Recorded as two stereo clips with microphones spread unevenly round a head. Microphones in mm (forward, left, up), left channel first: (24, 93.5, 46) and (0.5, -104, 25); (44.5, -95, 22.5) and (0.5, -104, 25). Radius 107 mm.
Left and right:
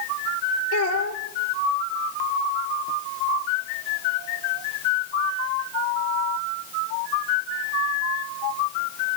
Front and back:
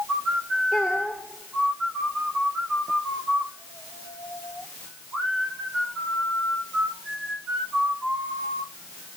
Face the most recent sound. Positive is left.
turn(degrees=105)